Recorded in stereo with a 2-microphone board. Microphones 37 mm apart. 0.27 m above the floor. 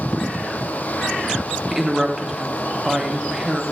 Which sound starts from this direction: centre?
A woman speaking, at 1.7 s.